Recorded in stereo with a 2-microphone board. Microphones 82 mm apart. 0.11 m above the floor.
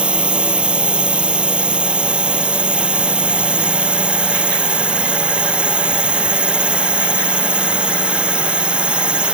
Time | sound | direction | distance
0.0 | a drone | 15° right (ahead or behind) | ?